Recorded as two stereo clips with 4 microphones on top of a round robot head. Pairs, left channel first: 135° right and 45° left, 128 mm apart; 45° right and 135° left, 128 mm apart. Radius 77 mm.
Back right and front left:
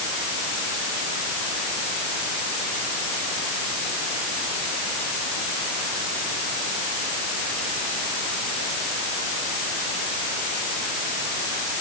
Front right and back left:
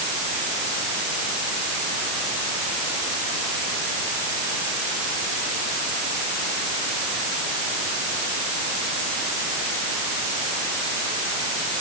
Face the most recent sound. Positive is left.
No sound to turn to.